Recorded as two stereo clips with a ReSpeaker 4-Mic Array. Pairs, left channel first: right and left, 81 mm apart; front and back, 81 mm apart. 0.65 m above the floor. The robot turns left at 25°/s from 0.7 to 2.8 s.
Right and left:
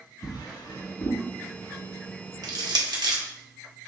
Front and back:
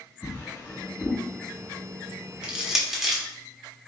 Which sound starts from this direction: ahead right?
A drawer, at 0.2 s.